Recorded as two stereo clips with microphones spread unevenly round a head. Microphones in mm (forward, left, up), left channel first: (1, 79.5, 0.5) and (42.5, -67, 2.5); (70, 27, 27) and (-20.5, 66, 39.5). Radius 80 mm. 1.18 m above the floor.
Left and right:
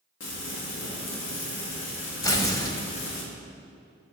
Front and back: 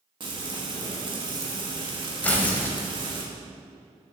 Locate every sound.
0.2 s frying: 115° left, 1.9 m
2.2 s tearing paper: 50° left, 1.2 m